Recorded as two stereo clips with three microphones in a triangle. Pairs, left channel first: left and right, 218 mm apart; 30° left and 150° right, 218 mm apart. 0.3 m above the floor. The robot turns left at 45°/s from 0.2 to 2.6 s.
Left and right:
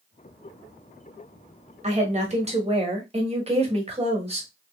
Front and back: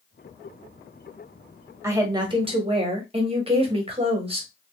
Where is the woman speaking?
85° right, 1.4 m; by 4.5 s 115° right, 1.4 m.